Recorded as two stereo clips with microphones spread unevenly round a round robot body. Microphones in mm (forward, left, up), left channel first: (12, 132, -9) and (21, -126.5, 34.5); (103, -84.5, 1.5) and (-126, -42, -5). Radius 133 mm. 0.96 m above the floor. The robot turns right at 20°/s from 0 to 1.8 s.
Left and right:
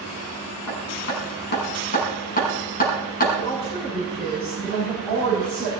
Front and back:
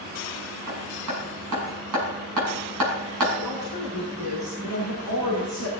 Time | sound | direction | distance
0.7 | hammering | 130° left | 6 m
3.4 | a woman speaking | 165° left | 7.5 m